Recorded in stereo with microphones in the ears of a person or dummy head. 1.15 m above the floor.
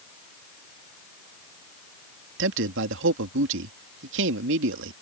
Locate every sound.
2.4 s a man speaking: 65° right (ahead or behind)